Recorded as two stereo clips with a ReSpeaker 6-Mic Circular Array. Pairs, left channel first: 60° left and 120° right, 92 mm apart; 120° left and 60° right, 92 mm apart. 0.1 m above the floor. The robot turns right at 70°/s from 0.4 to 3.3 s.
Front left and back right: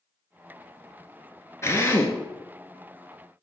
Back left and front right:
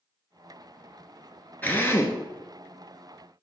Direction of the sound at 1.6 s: 70° left.